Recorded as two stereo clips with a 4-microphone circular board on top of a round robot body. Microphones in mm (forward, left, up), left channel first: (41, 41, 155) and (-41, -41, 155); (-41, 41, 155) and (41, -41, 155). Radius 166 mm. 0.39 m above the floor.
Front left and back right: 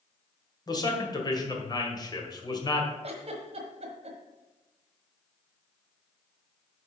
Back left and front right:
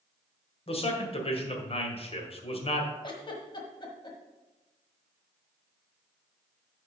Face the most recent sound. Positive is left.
turn(degrees=-170)